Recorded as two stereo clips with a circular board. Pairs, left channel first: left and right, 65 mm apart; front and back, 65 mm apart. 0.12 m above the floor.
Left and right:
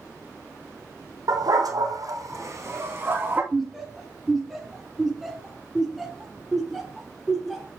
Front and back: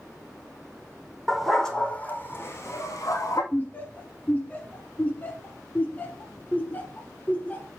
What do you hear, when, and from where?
1.3 s a dog barking: 95° right, 2 m; by 3.4 s 30° right, 3 m
3.5 s laughter: 5° right, 1.1 m